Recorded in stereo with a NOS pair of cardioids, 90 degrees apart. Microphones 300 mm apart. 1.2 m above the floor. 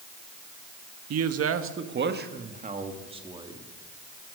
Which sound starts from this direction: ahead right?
A man speaking, at 1.1 s.